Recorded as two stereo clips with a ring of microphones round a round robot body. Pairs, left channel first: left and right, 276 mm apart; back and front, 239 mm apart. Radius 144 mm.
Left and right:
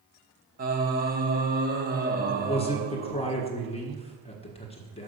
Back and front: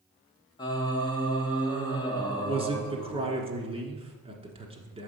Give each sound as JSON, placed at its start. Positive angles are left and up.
{"t": 0.6, "sound": "singing", "azimuth_deg": -120, "distance_m": 0.8}
{"t": 2.5, "sound": "a man speaking", "azimuth_deg": 45, "distance_m": 1.4}